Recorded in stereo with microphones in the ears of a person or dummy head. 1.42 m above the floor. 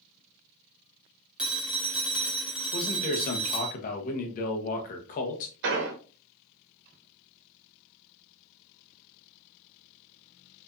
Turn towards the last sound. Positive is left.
turn(degrees=-65)  # may be behind; listen again after turning